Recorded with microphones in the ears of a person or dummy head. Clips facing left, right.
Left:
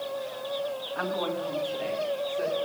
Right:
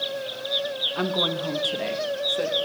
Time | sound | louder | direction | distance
0.9 | a woman speaking | right 4 dB | 55° right (ahead or behind) | 1.2 m